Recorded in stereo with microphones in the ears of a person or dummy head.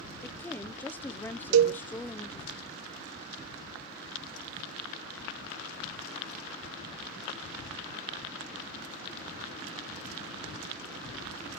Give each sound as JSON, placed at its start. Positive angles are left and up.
{"t": 0.2, "sound": "a woman speaking", "side_deg": 10, "distance_m": 0.6}
{"t": 1.5, "sound": "a cowbell", "side_deg": -65, "distance_m": 0.9}